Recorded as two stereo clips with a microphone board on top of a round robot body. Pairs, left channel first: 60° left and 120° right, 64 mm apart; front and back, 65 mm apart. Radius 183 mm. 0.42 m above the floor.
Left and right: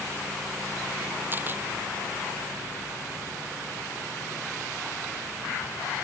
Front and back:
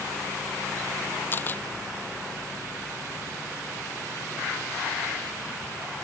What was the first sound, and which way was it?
A camera shutter, 60° right.